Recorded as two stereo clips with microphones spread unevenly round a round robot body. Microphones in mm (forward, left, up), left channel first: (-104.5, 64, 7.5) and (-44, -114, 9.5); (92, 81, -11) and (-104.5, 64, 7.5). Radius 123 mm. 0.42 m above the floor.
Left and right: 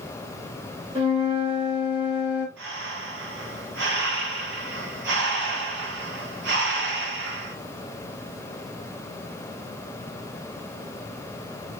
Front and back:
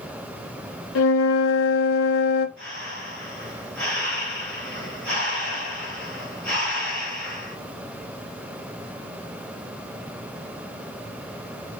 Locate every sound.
0.9 s a flute: 5° right, 0.6 m
2.6 s breathing: 80° right, 1.6 m